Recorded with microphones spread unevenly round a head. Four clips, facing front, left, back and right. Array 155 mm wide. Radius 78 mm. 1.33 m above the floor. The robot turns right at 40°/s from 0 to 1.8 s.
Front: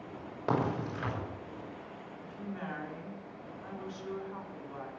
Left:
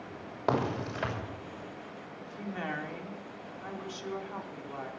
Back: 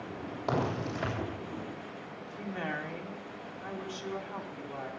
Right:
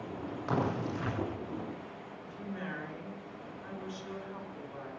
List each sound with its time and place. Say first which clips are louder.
0.5 s a crack: left 3 dB, even; 75° left, 6.5 m; by 1.1 s 105° left, 6.5 m
2.2 s a woman speaking: left 4 dB, back 4 dB; 130° left, 4 m